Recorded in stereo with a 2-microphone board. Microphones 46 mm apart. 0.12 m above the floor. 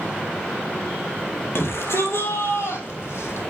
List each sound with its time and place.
1.6 s a shout: 65° left (ahead or behind), 3.5 m; by 3.4 s 75° left (ahead or behind), 5 m